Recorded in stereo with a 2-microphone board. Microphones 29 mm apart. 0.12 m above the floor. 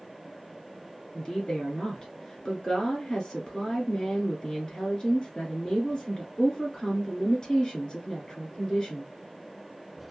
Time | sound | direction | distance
1.1 | a woman speaking | 30° left (ahead or behind) | 1.7 m